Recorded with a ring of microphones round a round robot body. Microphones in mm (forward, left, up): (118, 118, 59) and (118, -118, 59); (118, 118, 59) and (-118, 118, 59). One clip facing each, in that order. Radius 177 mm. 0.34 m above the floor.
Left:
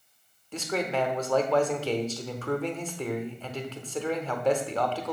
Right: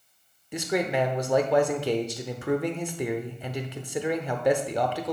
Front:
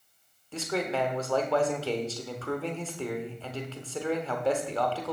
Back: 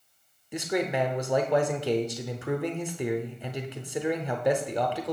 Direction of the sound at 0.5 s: 140° right.